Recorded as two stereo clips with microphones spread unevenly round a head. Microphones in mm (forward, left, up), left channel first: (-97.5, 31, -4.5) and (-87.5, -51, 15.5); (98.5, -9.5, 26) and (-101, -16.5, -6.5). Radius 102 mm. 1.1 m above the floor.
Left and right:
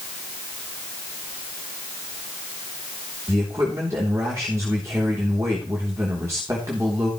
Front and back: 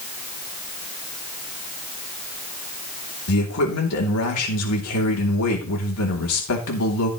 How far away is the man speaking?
About 3 m.